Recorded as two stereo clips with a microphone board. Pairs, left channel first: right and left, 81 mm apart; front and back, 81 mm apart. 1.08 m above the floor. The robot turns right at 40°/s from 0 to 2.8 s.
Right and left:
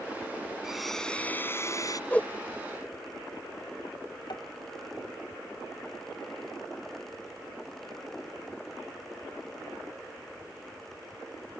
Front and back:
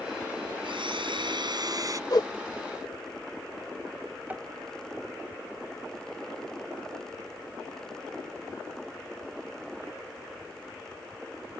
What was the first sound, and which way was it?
A blender, 175° left.